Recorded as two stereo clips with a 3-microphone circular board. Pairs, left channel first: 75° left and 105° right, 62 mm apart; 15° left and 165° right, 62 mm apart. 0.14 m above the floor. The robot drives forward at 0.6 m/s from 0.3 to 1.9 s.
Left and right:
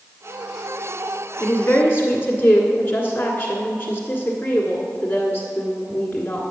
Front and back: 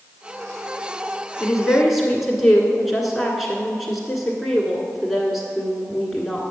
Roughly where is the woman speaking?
Left.